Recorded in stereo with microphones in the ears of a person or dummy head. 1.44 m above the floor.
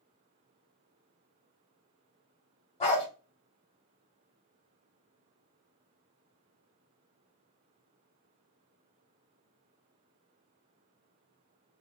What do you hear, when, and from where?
2.8 s a dog barking: 35° left (ahead or behind), 1.2 m